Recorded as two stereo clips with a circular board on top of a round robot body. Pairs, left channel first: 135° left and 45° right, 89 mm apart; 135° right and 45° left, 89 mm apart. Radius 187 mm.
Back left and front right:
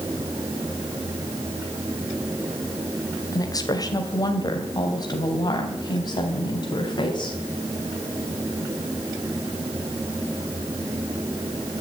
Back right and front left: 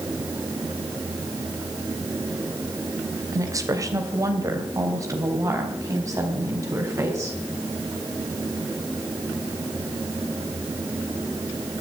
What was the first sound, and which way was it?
A woman speaking, 90° left.